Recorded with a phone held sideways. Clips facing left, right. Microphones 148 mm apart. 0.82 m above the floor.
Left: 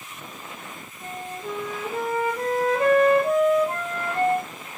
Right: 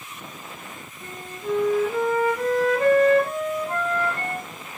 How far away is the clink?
I don't hear a clink.